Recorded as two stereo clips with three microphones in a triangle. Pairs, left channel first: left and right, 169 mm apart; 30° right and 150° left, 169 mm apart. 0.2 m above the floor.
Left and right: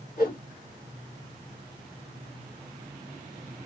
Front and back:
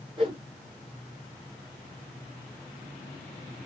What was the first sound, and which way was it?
A whoosh, 100° left.